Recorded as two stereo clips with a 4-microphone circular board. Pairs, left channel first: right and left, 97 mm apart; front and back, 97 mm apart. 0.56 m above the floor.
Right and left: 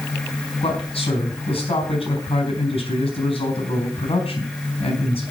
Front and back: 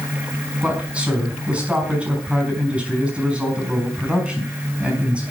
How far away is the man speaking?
About 5 m.